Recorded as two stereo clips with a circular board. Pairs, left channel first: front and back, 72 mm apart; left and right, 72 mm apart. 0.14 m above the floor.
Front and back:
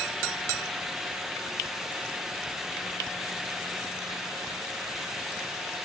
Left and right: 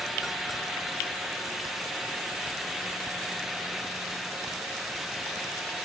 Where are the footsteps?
No footsteps in this recording.